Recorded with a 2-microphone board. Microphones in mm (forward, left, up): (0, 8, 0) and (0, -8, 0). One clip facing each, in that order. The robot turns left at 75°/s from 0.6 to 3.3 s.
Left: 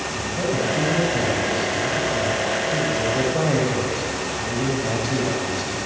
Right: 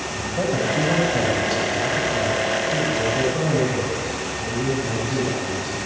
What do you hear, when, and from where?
0.1 s a man speaking: 40° right, 8.5 m; by 5.8 s 115° left, 8.5 m